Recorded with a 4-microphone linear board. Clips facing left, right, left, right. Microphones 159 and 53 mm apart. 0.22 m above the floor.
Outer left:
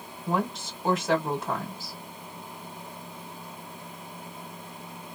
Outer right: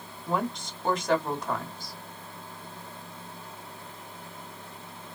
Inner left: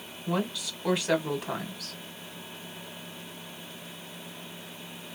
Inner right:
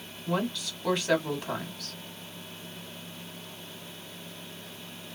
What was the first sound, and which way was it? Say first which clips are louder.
A woman speaking: outer left 1 dB, even; 5° left (ahead or behind).